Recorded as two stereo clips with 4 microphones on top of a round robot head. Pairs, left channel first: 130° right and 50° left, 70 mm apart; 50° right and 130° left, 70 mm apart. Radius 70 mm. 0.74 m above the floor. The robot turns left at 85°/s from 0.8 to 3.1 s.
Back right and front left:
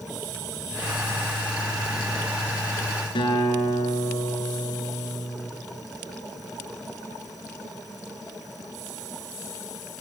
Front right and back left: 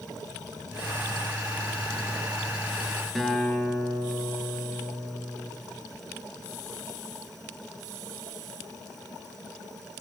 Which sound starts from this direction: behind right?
A guitar, at 3.1 s.